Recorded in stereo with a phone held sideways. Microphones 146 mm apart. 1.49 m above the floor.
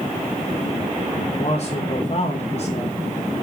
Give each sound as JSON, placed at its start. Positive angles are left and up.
{"t": 1.3, "sound": "a man speaking", "side_deg": 40, "distance_m": 2.5}